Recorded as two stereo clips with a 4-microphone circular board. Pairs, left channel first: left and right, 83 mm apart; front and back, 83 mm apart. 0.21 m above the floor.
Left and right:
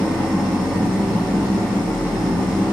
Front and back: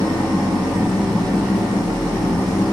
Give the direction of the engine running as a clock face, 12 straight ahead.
5 o'clock.